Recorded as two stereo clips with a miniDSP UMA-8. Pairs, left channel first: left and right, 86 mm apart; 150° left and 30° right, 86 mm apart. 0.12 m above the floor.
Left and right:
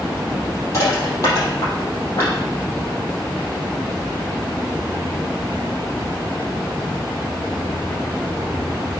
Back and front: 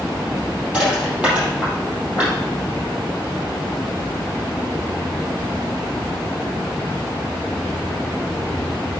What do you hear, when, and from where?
0.7 s crushing: 45° left, 4.5 m